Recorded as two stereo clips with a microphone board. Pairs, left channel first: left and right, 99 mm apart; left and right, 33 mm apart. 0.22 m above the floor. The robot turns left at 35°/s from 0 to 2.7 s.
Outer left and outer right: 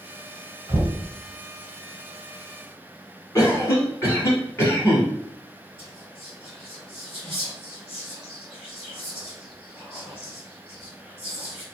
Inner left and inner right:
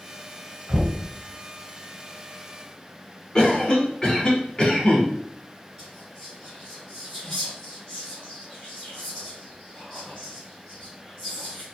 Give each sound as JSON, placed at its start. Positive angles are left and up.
{"t": 0.7, "sound": "knocking", "side_deg": -45, "distance_m": 1.1}
{"t": 3.4, "sound": "a cough", "side_deg": 25, "distance_m": 1.5}
{"t": 5.8, "sound": "whispering", "side_deg": 0, "distance_m": 1.6}